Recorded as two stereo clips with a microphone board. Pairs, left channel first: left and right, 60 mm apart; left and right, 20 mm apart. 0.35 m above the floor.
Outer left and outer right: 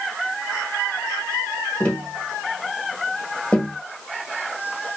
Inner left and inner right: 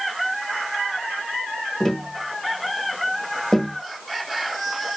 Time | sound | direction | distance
1.8 | tapping | 20° left (ahead or behind) | 1.0 m